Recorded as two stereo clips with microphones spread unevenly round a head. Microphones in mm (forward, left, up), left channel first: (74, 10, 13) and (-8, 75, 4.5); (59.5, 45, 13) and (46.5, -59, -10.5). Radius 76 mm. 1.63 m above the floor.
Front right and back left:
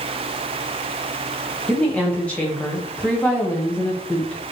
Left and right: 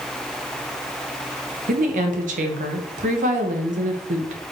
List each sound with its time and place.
1.7 s a woman speaking: 120° right, 1.3 m